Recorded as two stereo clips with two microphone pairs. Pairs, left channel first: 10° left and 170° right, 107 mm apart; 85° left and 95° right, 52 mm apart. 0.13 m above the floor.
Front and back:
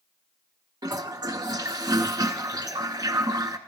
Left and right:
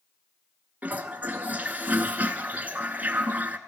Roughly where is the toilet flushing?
Behind right.